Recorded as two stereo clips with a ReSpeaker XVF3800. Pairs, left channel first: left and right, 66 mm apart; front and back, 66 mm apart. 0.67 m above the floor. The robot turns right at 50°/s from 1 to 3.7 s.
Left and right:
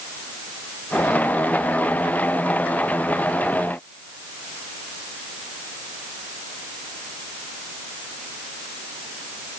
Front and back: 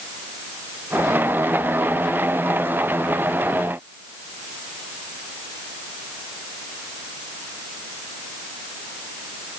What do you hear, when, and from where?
Only background noise.